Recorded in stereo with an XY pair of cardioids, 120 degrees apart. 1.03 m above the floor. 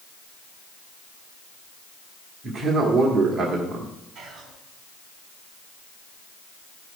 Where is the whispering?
60° right, 3.5 m.